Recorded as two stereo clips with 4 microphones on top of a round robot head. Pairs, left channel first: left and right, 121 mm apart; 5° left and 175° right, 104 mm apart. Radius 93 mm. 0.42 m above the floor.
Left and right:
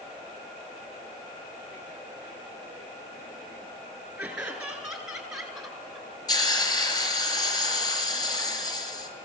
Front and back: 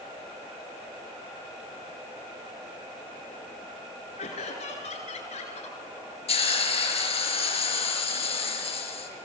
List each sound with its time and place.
4.2 s laughter: 10° right, 8 m; by 6.1 s straight ahead, 8 m
6.3 s a hiss: 35° left, 5 m